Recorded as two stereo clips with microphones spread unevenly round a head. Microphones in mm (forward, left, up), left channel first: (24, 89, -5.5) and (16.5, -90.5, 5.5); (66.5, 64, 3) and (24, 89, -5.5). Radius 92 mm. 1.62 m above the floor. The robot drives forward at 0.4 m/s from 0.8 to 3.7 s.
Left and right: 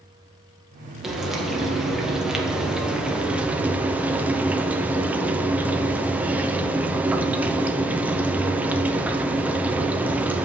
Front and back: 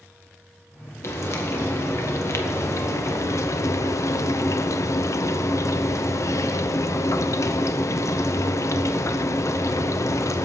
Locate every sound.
1.0 s frying: 5° right, 1.9 m; by 10.4 s 10° right, 0.8 m